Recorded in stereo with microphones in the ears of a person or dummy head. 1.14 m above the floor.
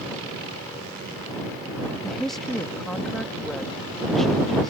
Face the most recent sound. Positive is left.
turn(degrees=10)  # may be behind; listen again after turning